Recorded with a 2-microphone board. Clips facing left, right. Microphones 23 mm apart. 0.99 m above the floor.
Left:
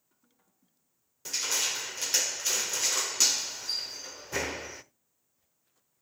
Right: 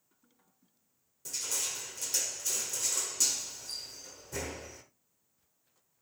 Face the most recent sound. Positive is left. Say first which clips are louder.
# left 6 dB
turn(degrees=50)  # may be behind; listen again after turning